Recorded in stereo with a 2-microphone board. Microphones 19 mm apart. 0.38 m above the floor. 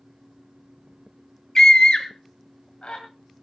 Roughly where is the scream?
Left.